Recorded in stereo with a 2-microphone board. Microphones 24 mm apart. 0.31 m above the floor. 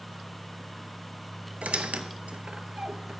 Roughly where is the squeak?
Right.